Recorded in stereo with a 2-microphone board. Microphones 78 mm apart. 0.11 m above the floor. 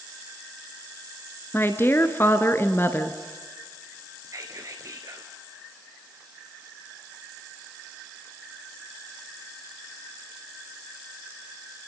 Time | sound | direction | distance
1.5 | a woman speaking | 30° left (ahead or behind) | 1.3 m
4.2 | whispering | 45° right (ahead or behind) | 1.4 m